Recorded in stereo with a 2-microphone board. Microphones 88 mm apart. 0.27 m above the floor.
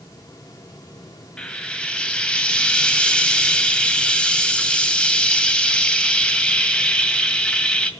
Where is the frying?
10° left (ahead or behind), 1.8 m.